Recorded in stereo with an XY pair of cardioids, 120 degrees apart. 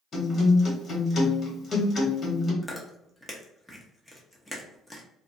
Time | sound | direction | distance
0.1 | a guitar | 30° left | 1.5 m
2.6 | chewing | straight ahead | 0.8 m